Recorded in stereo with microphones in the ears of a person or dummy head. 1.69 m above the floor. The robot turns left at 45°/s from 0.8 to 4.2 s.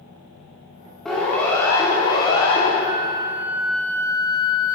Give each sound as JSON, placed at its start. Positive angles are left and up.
{"t": 1.1, "sound": "a siren", "side_deg": 0, "distance_m": 4.0}
{"t": 2.8, "sound": "a flute", "azimuth_deg": -145, "distance_m": 0.6}